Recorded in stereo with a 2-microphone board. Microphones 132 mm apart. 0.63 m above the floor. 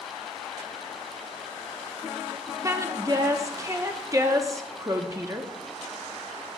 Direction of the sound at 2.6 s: 25° right (ahead or behind).